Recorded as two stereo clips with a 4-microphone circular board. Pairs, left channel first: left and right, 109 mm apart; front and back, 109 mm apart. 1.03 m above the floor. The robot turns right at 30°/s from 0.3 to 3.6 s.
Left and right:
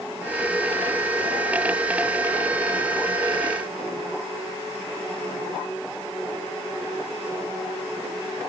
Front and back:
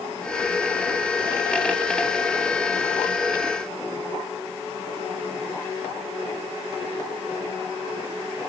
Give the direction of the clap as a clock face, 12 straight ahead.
No clap in this recording.